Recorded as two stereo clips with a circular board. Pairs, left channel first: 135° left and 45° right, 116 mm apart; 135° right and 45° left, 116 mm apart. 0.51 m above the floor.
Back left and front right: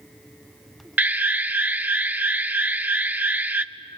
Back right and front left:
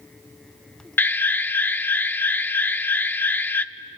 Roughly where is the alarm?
Right.